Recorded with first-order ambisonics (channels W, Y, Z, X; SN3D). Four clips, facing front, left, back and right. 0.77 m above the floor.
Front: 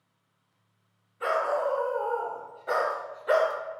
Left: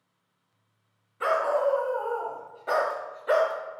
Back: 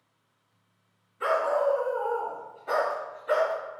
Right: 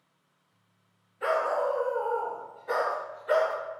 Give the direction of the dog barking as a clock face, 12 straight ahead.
9 o'clock.